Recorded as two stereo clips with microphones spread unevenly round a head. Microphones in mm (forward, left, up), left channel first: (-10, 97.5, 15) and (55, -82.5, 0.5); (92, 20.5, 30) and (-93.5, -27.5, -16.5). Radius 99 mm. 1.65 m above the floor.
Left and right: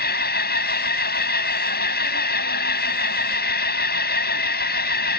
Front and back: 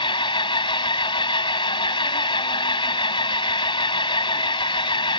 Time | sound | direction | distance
0.0 | an engine running | 75° left | ?